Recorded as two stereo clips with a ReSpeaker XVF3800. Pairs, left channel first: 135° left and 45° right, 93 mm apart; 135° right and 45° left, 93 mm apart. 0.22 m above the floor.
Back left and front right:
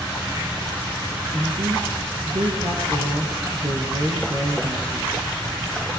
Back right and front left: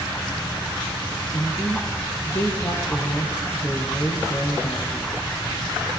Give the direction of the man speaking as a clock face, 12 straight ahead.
3 o'clock.